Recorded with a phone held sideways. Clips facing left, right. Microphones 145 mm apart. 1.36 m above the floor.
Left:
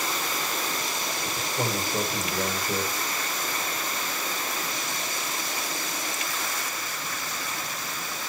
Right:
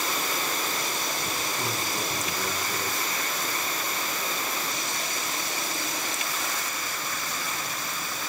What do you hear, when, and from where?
1.4 s a man speaking: 80° left, 6.5 m